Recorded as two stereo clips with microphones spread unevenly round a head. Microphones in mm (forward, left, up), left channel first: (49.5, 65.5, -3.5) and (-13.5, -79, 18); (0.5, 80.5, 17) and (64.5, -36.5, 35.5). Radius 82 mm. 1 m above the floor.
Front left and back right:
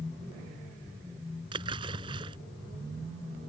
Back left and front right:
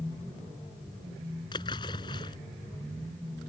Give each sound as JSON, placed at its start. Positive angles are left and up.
{"t": 1.5, "sound": "a splash", "azimuth_deg": -175}